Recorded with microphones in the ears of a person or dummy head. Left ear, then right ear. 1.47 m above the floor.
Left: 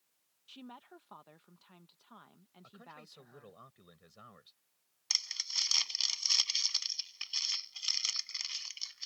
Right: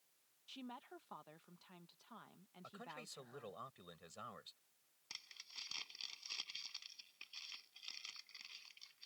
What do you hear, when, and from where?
0.5 s a woman speaking: 5° left (ahead or behind)
2.6 s a man speaking: 25° right (ahead or behind)
5.1 s crumpling: 60° left (ahead or behind)